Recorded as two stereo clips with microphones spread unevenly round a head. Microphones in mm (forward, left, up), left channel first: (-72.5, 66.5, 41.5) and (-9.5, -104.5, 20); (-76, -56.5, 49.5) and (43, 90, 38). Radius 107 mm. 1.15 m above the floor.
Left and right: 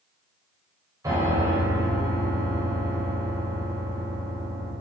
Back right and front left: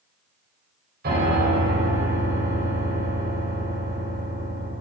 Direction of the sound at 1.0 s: 5° left.